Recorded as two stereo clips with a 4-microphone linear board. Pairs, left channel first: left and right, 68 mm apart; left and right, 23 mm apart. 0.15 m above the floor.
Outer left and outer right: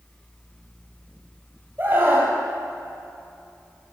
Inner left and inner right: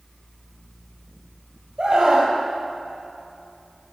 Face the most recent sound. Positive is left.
turn(degrees=-35)  # may be behind; listen again after turning